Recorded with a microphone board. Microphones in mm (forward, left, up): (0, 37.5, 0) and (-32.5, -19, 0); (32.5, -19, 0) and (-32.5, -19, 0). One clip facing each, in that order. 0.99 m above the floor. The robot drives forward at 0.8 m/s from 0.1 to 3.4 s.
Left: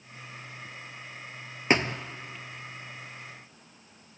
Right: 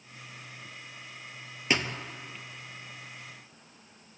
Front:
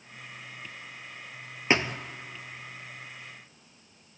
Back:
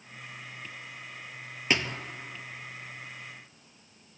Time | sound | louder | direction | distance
1.7 | a thud | left 5 dB, front 3 dB | 45° left | 1.2 m